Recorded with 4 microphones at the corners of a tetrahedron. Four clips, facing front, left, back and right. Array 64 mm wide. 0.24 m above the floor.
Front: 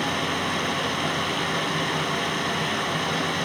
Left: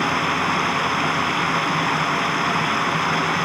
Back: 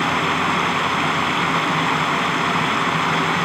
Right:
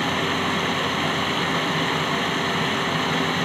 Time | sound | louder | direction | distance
0.0 | running water | left 3 dB, back 7 dB | 150° left | 1.4 m